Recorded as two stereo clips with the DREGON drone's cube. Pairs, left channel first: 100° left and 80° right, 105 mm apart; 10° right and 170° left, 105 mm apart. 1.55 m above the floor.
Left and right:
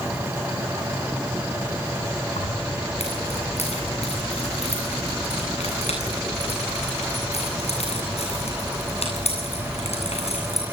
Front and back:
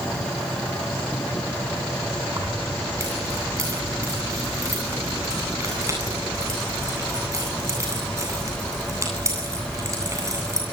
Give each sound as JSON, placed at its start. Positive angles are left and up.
{"t": 2.4, "sound": "keys jangling", "azimuth_deg": 110, "distance_m": 9.5}